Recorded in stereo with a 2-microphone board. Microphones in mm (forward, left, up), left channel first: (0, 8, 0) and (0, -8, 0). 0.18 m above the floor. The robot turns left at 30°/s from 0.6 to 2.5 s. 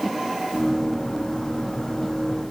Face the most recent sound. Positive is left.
No sound to turn to.